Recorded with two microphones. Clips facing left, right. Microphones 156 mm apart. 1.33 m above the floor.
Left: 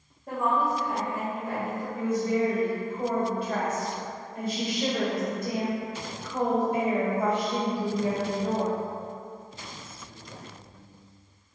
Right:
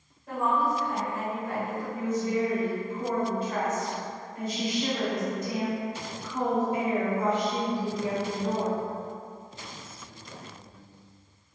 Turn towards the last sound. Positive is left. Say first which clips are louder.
# left 2 dB
turn(degrees=60)  # may be behind; listen again after turning